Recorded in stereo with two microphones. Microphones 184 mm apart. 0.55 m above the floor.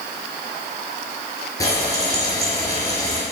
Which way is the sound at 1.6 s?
20° left (ahead or behind).